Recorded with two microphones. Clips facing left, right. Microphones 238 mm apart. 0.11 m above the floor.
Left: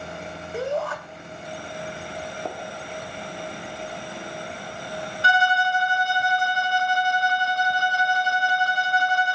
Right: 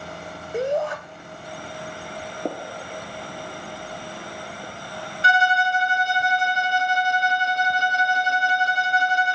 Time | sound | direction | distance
0.5 | a shout | 15° right (ahead or behind) | 7 m
2.5 | a gunshot | 35° right (ahead or behind) | 1.7 m
5.2 | a violin | 20° right (ahead or behind) | 0.5 m